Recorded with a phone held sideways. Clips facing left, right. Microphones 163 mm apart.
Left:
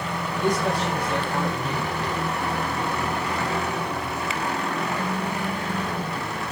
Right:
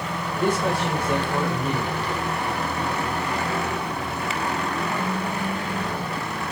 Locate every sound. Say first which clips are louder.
0.4 s a man speaking: right 1 dB; 60° right (ahead or behind), 6 m